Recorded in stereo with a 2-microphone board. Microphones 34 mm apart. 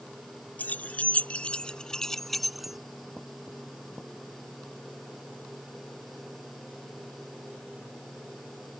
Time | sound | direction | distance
0.6 | keys jangling | 55° left (ahead or behind) | ?